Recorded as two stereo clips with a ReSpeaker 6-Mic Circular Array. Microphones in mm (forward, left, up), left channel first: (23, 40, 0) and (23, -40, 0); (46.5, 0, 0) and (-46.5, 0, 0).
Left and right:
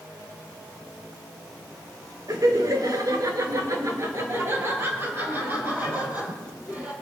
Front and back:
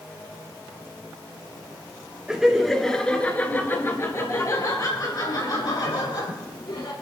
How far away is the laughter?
About 2.5 m.